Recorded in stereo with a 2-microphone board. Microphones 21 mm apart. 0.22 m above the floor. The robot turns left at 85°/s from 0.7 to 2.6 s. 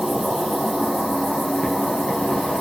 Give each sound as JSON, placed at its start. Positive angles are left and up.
{"t": 0.0, "sound": "an insect", "azimuth_deg": -145, "distance_m": 1.8}